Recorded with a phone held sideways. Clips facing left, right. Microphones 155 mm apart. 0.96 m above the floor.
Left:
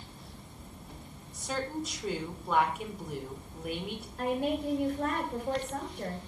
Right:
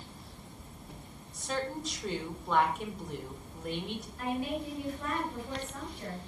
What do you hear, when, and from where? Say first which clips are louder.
1.3 s a woman speaking: left 1 dB; 5° left (ahead or behind), 3 m
4.2 s a woman speaking: left 4 dB; 80° left, 4 m